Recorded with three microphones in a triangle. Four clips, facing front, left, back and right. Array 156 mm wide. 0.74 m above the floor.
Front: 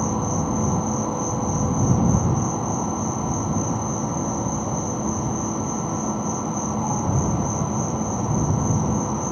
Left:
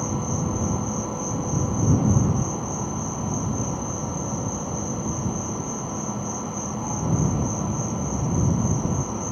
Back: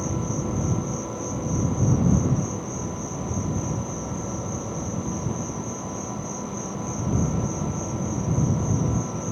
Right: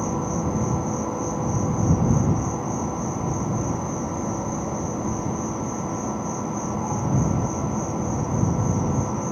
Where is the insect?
10° right.